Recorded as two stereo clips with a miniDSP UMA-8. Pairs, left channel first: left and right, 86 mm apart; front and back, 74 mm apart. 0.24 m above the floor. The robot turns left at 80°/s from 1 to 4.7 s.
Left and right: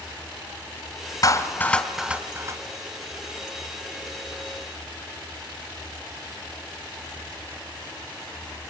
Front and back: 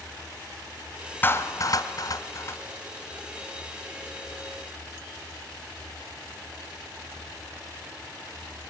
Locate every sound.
1.2 s a clap: 55° left, 1.9 m; by 2.6 s 55° right, 1.9 m